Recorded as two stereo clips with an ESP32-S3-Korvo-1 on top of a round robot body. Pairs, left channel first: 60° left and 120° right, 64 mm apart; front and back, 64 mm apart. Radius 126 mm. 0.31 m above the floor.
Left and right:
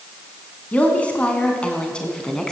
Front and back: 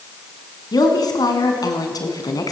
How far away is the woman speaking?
About 4 m.